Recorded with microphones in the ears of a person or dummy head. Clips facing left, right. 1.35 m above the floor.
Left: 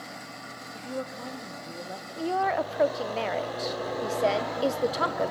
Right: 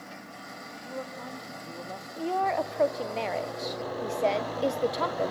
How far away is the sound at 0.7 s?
About 1.7 m.